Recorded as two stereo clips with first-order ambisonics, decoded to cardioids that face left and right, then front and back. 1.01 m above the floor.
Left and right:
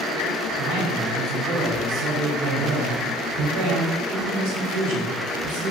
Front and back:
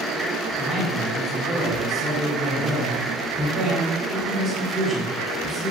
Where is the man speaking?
110° right, 5.5 m.